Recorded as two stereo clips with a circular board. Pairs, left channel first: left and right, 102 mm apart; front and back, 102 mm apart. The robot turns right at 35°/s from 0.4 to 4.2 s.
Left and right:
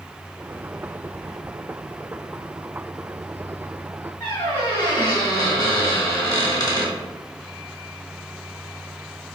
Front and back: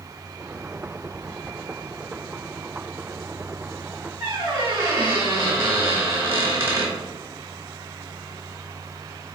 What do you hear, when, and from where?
4.2 s a squeak: 125° left, 1.2 m